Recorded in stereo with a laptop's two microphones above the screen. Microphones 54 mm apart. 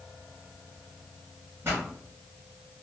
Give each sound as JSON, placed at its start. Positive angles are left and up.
{"t": 1.6, "sound": "a pop", "side_deg": -50, "distance_m": 1.4}